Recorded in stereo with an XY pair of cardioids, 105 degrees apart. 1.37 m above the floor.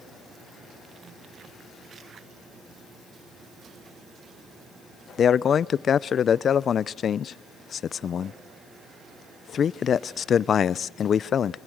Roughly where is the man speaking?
Ahead left.